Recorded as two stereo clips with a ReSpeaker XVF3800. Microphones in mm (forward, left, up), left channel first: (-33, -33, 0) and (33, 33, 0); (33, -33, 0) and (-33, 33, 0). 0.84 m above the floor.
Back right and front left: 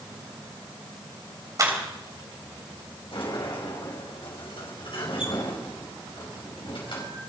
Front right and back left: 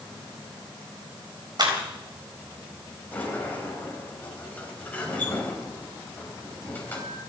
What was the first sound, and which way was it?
A clap, 95° left.